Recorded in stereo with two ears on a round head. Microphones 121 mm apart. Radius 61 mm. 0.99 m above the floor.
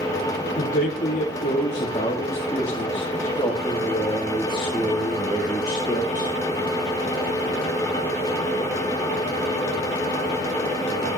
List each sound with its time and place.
0.6 s a man speaking: 55° left (ahead or behind), 2.5 m; by 6.3 s 10° right (ahead or behind), 4 m